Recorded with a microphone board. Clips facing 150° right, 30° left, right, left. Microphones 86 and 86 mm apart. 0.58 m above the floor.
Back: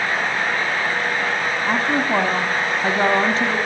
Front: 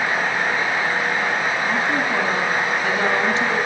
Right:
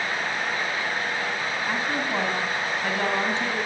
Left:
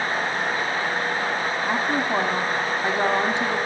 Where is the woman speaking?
160° left, 5 m.